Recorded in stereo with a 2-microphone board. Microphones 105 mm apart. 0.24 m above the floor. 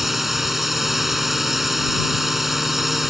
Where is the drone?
5° right (ahead or behind).